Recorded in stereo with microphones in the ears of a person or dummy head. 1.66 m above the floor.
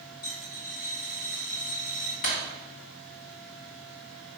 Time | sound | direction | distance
0.2 | a dropped coin | 55° left (ahead or behind) | 2 m
2.2 | breaking glass | 40° left (ahead or behind) | 1.5 m